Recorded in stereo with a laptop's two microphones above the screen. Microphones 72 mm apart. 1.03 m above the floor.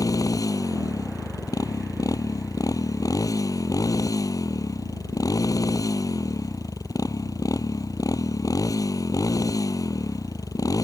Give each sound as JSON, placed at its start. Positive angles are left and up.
{"t": 0.0, "sound": "a motorcycle", "side_deg": 55}